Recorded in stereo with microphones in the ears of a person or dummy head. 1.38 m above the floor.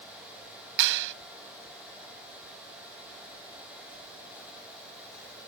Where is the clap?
65° right (ahead or behind).